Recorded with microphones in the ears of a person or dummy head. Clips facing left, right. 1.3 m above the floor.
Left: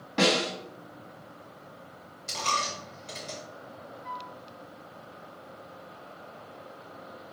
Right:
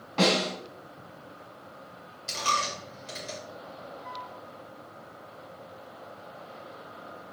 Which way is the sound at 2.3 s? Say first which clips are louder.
Right 1 dB; 5° right (ahead or behind).